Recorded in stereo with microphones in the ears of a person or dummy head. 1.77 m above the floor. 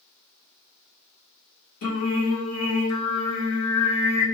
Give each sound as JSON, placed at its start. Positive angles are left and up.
{"t": 1.8, "sound": "singing", "side_deg": 65, "distance_m": 0.9}